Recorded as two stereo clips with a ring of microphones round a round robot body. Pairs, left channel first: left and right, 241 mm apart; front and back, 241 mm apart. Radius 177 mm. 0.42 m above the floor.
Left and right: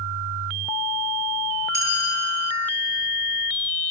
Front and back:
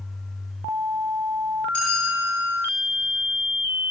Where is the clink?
85° right, 8.5 m.